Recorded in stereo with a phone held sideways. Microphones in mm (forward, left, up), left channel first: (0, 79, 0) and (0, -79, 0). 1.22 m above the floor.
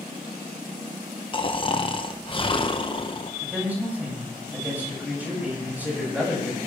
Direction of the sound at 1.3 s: 35° left (ahead or behind).